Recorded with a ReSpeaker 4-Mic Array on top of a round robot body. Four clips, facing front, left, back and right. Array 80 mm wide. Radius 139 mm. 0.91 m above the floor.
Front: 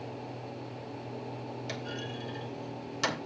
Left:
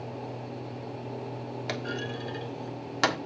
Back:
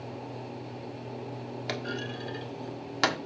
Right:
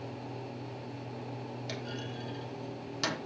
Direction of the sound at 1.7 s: 125° left.